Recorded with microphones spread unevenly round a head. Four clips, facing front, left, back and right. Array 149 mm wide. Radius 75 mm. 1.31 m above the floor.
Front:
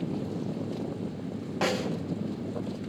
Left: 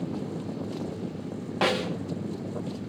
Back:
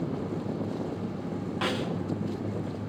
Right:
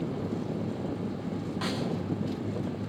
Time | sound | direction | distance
1.6 | a snare drum | 70° left | 2.5 m